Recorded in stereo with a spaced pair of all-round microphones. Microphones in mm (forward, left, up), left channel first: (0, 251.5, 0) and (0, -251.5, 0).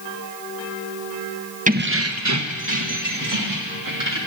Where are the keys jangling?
15° right (ahead or behind), 0.7 m; by 4.2 s 40° right (ahead or behind), 2 m.